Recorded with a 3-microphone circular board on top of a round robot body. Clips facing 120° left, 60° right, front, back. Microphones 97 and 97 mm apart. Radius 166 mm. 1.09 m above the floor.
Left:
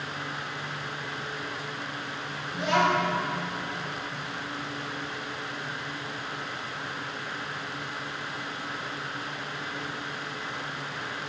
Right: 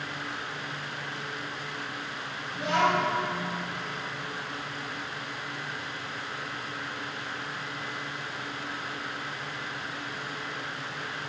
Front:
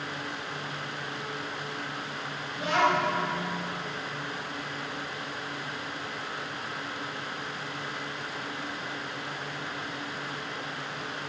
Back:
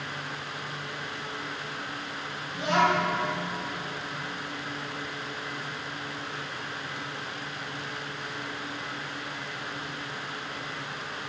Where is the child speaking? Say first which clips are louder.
Left 1 dB, back 1 dB; 110° left, 2.5 m.